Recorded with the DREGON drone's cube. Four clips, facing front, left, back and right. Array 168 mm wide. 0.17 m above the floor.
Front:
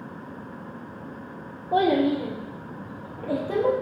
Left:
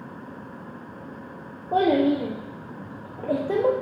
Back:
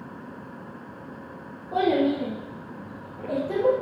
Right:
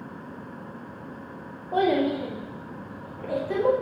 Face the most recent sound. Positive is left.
turn(degrees=75)